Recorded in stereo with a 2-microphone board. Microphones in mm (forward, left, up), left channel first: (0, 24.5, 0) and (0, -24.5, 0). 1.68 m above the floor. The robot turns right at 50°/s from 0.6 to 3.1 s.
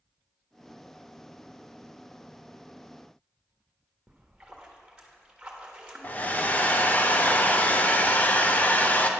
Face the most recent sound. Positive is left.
turn(degrees=35)  # may be behind; listen again after turning